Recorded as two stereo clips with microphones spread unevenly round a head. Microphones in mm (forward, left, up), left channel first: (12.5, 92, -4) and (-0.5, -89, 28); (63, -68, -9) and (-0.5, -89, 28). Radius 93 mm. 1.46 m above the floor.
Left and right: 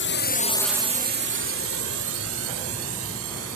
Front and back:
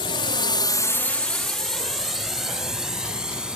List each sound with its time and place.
0.0 s a drone: 60° left; by 3.6 s 85° right